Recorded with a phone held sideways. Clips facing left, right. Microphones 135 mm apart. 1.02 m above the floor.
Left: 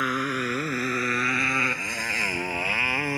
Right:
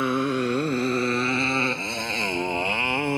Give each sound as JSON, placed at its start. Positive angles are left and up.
{"t": 0.0, "sound": "a motorcycle", "side_deg": -25}